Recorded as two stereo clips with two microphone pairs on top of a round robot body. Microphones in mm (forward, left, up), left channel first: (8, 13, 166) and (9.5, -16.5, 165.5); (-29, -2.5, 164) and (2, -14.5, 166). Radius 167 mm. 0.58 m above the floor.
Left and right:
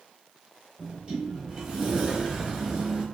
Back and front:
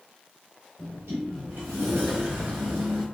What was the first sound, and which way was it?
A sliding door, 20° right.